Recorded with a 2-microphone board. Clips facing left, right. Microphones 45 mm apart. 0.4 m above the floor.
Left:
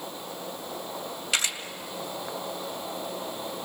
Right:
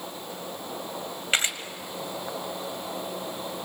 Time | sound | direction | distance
1.3 | a camera shutter | 30° right (ahead or behind) | 2 m